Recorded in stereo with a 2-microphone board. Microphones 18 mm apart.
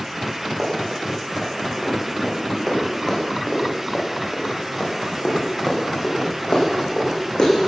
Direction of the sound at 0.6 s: 15° right (ahead or behind).